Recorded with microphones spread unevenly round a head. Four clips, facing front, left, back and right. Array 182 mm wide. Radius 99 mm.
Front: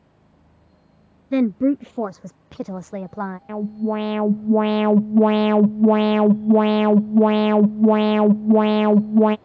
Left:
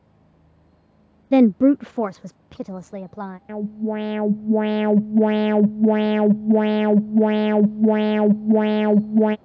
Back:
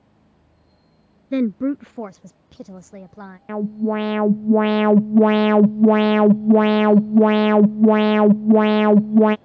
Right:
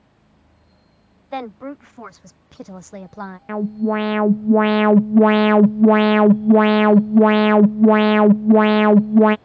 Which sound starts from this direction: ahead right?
An alarm, at 3.5 s.